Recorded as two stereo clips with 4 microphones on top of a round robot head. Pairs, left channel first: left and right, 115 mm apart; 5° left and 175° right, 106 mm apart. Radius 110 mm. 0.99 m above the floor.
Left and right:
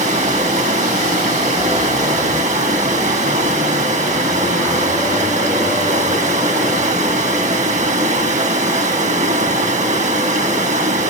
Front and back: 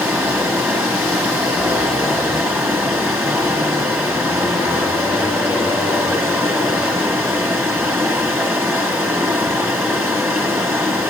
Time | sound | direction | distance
0.0 | running water | 105° right | 1.7 m